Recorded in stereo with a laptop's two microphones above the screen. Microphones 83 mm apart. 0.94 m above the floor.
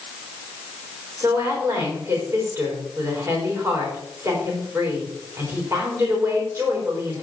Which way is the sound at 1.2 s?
30° right (ahead or behind).